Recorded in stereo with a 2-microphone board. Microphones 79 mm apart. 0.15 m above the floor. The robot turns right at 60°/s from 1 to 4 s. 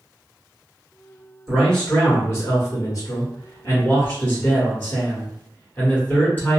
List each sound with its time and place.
1.5 s a man speaking: 5° right, 1.9 m; by 6.6 s 145° left, 1.9 m